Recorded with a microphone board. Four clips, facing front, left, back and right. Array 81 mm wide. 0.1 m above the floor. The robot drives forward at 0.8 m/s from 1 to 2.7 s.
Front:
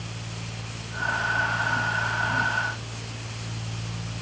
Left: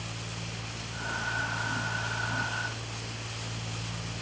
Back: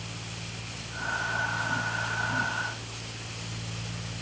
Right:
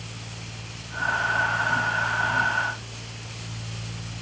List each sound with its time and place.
Only background noise.